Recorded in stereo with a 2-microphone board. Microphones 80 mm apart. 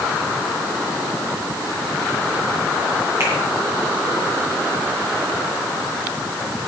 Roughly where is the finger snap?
Right.